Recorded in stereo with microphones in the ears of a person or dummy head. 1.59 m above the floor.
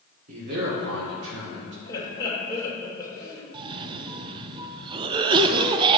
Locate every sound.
0.3 s a man speaking: 45° right (ahead or behind), 1.6 m; by 1.8 s 70° right (ahead or behind), 1.8 m
1.9 s laughter: 15° left (ahead or behind), 2.5 m
3.5 s a cough: 25° right (ahead or behind), 0.5 m